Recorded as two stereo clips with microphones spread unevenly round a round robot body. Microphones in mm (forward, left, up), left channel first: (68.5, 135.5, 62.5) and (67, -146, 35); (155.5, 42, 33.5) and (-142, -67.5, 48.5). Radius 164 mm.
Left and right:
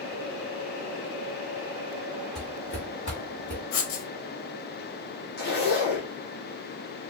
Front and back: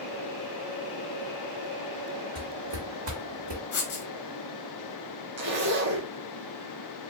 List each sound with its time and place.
2.4 s footsteps: 145° left, 1.7 m; by 3.6 s 175° left, 1.5 m
3.7 s writing: 80° left, 0.7 m
5.4 s a zipper: 145° left, 0.7 m